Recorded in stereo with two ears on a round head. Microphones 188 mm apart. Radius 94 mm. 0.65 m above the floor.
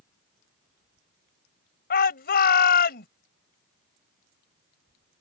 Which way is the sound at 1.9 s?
45° left (ahead or behind).